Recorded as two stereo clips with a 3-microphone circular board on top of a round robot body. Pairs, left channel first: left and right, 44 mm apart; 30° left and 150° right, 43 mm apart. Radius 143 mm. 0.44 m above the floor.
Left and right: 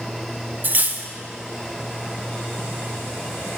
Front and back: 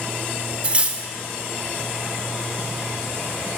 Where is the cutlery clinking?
105° right, 0.6 m.